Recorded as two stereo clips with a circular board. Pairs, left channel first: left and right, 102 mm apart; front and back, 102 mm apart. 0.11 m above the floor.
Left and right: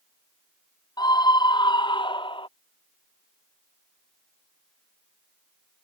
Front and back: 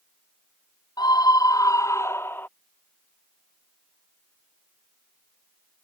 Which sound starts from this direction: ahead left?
A scream, at 1.0 s.